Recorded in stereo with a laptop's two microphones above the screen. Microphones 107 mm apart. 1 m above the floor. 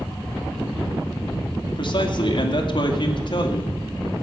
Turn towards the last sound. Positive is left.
turn(degrees=55)  # may be behind; listen again after turning